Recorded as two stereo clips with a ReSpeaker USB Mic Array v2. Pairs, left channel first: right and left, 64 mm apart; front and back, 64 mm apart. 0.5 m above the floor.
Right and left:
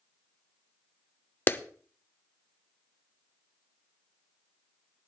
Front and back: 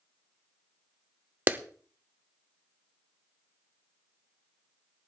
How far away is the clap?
About 0.7 m.